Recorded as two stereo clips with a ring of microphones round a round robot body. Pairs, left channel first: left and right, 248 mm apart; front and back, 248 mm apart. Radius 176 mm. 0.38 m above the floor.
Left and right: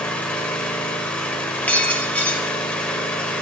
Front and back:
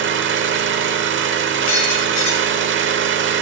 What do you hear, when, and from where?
0.0 s an engine running: 175° left, 0.9 m
1.7 s breaking glass: 5° left, 4 m